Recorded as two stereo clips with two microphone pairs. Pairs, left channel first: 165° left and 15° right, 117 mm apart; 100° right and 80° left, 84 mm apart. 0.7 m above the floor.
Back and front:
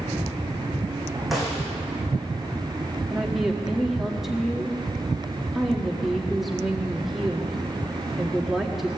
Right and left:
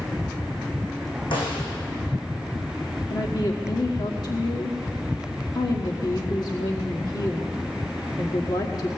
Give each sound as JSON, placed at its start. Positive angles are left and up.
{"t": 1.3, "sound": "a snare drum", "azimuth_deg": -105, "distance_m": 6.5}
{"t": 3.1, "sound": "a woman speaking", "azimuth_deg": -100, "distance_m": 1.5}